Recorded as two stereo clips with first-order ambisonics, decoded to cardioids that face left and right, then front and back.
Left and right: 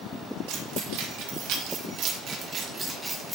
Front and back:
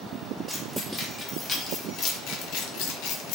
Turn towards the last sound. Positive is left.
turn(degrees=0)